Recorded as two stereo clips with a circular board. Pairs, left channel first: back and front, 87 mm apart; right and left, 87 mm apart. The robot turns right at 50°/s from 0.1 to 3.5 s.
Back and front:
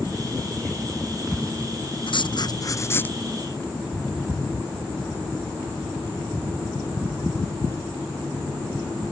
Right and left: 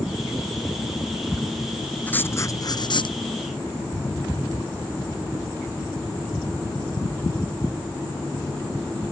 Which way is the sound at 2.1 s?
160° right.